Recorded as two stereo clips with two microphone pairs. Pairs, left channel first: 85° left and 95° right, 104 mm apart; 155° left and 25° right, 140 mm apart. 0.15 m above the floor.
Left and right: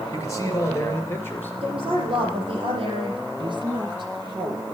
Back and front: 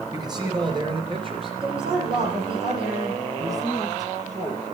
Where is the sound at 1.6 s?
70° right, 5 m.